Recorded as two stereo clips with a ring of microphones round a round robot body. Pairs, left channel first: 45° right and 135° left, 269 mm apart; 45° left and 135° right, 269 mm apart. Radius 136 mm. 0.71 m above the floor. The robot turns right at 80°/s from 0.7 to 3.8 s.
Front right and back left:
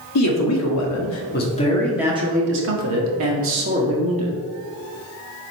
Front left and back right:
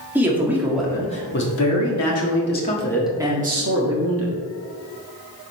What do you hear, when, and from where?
0.1 s a man speaking: 50° right, 1.6 m; by 4.4 s 165° right, 1.6 m